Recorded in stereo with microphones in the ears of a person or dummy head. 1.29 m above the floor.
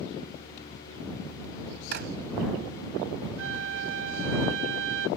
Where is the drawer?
60° right (ahead or behind).